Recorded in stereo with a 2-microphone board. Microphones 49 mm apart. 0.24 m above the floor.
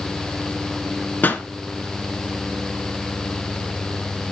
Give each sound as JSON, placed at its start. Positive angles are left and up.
{"t": 1.2, "sound": "a pop", "side_deg": 40, "distance_m": 1.6}